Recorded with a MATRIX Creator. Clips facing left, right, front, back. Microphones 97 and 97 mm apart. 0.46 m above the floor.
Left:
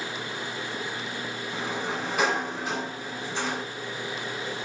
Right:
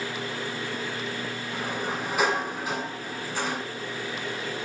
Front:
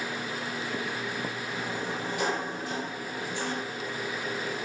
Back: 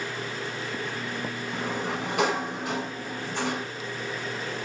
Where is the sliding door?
175° right, 1.7 m.